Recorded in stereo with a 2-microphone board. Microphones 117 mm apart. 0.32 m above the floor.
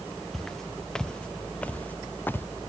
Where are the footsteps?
Centre (ahead or behind); by 2.5 s 20° left (ahead or behind).